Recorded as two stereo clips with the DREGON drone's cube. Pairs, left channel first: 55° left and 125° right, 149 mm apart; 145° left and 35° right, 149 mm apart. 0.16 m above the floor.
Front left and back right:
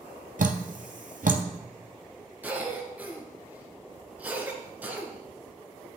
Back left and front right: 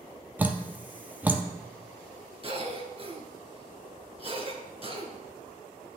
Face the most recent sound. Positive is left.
turn(degrees=-50)